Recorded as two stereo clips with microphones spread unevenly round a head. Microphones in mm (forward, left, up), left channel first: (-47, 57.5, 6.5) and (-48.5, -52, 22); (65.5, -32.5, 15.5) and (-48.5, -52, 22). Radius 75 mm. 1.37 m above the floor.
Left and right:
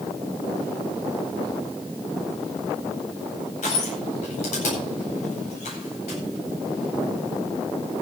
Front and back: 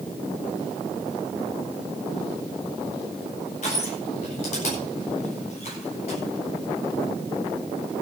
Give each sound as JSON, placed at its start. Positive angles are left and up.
{"t": 3.6, "sound": "crushing", "azimuth_deg": 50, "distance_m": 9.0}